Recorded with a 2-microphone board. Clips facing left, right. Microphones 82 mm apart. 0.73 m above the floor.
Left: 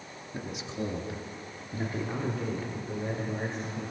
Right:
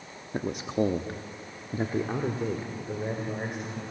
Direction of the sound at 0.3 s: 45° right (ahead or behind).